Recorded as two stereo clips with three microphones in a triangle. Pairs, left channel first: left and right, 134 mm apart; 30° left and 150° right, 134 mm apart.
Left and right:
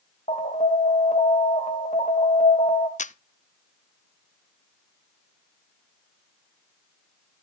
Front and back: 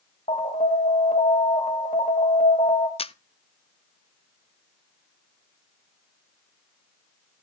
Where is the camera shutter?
70° left, 0.5 m.